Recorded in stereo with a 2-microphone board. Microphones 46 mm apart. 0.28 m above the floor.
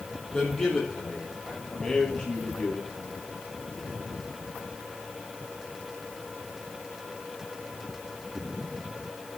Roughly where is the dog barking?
I don't hear a dog barking.